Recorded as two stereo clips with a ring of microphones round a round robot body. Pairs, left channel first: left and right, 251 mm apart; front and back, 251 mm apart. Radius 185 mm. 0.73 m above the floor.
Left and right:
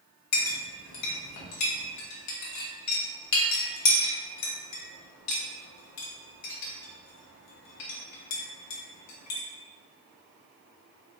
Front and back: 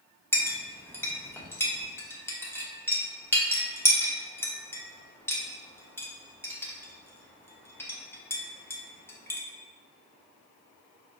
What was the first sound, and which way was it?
A clink, 80° left.